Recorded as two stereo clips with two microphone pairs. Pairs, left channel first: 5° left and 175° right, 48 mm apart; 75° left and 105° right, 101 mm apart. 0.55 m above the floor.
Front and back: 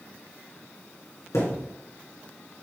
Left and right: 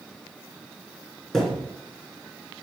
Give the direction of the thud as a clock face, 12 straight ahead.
12 o'clock.